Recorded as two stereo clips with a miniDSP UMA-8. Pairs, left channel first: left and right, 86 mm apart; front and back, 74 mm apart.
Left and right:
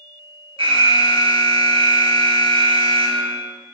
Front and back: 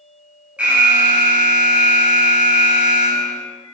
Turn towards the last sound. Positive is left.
turn(degrees=-105)